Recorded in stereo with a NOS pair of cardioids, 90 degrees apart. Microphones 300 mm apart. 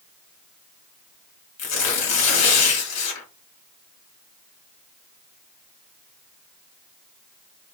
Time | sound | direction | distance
1.6 | tearing paper | 60° left | 2.5 m